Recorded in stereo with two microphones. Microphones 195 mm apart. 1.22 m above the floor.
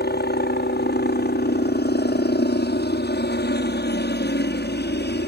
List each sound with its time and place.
0.0 s a helicopter: 60° left (ahead or behind)